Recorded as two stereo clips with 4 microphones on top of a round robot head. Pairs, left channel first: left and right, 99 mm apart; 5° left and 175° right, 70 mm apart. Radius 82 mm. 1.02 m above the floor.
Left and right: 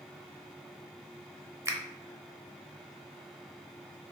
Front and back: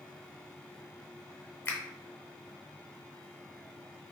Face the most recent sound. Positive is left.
turn(degrees=-40)